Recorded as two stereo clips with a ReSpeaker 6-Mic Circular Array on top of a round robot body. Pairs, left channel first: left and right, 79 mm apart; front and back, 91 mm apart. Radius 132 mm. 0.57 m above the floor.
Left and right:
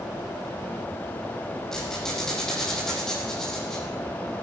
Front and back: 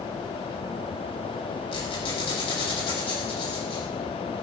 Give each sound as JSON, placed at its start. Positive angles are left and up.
{"t": 1.7, "sound": "a squeak", "azimuth_deg": 5, "distance_m": 9.0}